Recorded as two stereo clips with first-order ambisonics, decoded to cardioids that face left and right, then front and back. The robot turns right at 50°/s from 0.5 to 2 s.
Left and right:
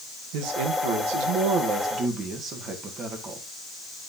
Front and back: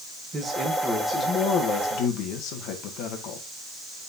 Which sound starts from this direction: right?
A man speaking, at 0.3 s.